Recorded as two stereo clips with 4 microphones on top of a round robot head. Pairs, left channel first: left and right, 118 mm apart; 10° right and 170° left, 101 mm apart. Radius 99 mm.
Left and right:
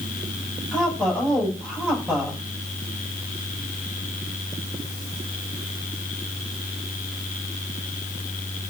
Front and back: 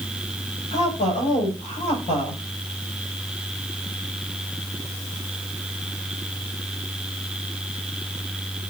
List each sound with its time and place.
0.7 s a woman speaking: straight ahead, 7.5 m